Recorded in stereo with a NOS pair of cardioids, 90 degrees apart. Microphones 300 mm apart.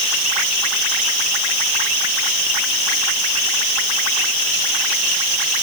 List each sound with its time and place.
Only background noise.